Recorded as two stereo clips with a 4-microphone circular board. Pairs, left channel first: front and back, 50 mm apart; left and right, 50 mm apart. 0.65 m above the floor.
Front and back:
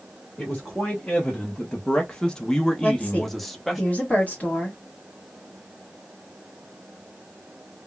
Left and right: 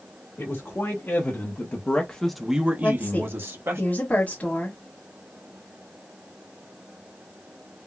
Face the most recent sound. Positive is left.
turn(degrees=45)